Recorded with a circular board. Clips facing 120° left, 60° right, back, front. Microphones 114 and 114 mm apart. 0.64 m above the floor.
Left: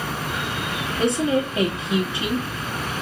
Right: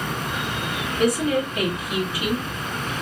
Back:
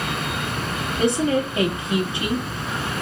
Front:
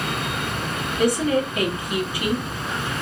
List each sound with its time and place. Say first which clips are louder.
1.0 s a woman speaking: even, even; 145° left, 1.3 m